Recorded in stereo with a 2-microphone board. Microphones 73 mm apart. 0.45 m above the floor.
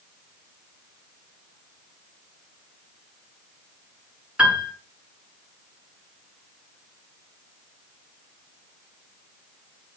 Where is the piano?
15° right (ahead or behind), 6.5 m.